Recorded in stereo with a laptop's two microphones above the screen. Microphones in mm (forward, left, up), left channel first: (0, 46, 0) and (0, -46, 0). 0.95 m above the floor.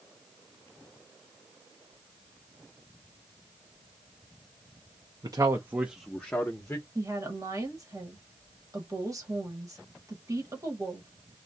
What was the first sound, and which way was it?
A man speaking, 45° right (ahead or behind).